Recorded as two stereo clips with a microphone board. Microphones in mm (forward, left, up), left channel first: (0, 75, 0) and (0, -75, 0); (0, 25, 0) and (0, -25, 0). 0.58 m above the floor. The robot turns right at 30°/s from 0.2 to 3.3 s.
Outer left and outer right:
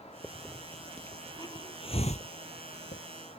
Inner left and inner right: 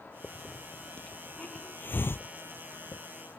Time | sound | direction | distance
0.2 | a hiss | 10° right (ahead or behind) | ?